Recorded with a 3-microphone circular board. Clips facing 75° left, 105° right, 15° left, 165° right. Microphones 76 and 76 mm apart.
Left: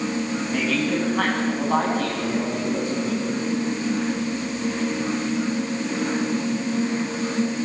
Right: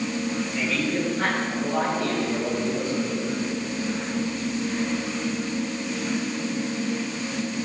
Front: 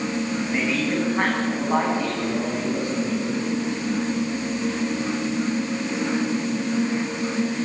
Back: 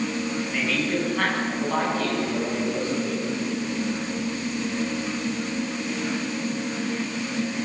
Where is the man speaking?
80° left, 9 m; by 3.2 s 90° left, 10 m.